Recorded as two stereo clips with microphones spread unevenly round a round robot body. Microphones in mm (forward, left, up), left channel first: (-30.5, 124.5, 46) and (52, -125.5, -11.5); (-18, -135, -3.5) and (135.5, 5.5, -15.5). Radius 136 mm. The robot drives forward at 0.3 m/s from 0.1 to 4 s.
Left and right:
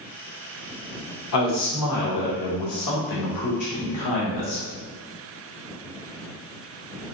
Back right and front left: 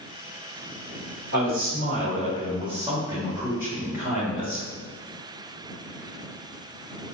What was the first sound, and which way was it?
A man speaking, 80° left.